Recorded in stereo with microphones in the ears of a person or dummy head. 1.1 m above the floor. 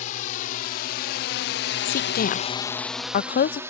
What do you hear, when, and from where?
0.0 s a drone: 55° left (ahead or behind); by 3.7 s 15° right (ahead or behind)
1.9 s a woman speaking: 45° left (ahead or behind)